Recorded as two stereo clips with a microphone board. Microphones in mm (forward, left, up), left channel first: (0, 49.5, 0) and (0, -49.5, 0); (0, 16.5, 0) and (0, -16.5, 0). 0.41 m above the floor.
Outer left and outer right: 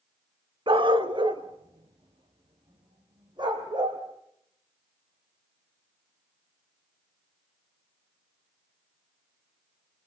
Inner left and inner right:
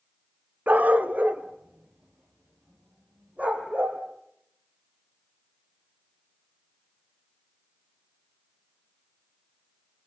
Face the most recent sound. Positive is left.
turn(degrees=-45)  # may be behind; listen again after turning